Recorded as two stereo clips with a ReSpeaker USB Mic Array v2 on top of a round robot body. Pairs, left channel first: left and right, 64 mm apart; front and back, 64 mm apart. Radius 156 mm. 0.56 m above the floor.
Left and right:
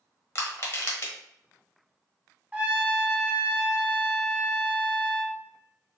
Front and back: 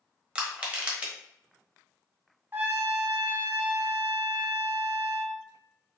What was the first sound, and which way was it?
Crushing, 115° left.